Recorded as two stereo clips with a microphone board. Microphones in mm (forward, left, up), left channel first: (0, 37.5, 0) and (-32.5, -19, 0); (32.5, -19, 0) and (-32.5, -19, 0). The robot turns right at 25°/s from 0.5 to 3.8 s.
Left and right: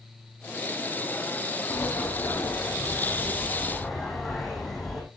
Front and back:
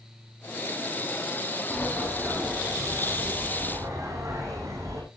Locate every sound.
1.7 s a sliding door: 90° left, 8 m; by 5.0 s 145° left, 8 m